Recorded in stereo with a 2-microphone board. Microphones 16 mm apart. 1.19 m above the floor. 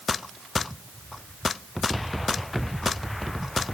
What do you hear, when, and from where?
Only background noise.